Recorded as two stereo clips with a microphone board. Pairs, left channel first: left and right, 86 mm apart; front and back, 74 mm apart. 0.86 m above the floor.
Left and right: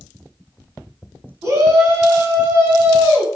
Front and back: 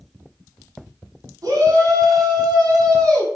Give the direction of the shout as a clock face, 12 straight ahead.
5 o'clock.